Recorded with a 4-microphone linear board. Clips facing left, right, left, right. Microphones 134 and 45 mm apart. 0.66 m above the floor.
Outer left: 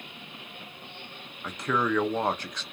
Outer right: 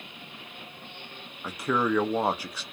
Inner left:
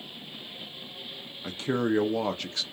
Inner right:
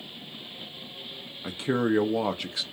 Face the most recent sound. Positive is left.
turn(degrees=-10)  # may be behind; listen again after turning